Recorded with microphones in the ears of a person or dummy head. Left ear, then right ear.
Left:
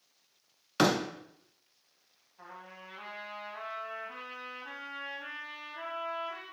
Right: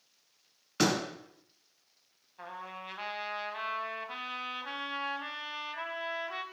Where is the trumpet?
45° right (ahead or behind), 1.2 m.